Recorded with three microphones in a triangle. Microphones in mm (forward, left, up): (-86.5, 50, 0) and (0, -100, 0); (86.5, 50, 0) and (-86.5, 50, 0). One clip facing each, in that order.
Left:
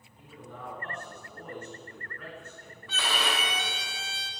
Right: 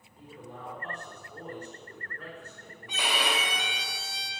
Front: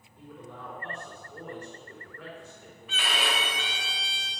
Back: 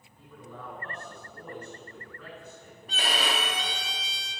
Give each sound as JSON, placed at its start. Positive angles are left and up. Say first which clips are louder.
{"t": 0.2, "sound": "a man speaking", "louder": "right 1 dB, front 1 dB", "azimuth_deg": -5, "distance_m": 4.0}
{"t": 2.9, "sound": "a violin", "louder": "right 1 dB, back 1 dB", "azimuth_deg": -135, "distance_m": 1.3}